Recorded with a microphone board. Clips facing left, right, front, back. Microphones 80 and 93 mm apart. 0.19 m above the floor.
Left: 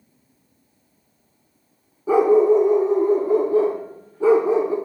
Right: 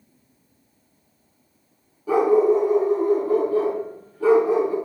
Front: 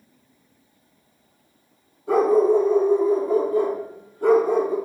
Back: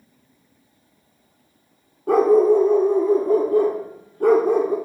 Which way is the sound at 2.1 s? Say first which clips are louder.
Left 2 dB, back 2 dB; 155° left.